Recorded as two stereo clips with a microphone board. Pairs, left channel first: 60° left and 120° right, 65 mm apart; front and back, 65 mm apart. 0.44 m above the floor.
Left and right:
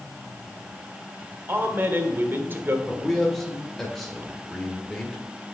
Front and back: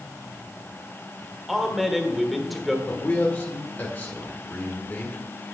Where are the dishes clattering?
I don't hear dishes clattering.